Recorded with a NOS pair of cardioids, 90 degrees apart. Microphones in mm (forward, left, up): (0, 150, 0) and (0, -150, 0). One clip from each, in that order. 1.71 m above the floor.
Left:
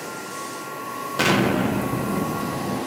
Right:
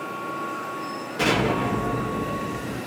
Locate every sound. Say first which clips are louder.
1.2 s an explosion: left 2 dB; 55° left, 0.9 m